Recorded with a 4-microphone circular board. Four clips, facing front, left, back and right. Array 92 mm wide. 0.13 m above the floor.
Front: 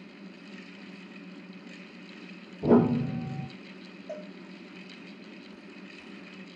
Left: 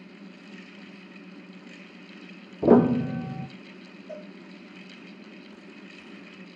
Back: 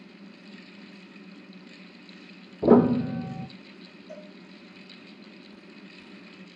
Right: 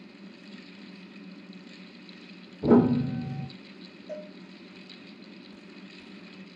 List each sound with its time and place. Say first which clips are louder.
2.6 s a piano: left 2 dB, back 4 dB; 120° left, 0.7 m
4.1 s a cowbell: right 2 dB, front 4 dB; 10° right, 2.5 m